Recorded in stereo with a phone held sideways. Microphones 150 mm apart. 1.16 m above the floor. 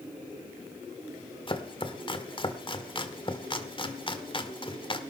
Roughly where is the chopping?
Left.